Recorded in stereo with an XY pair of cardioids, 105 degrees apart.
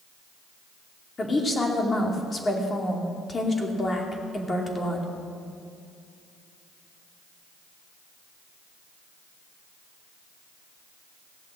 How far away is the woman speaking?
About 2.5 m.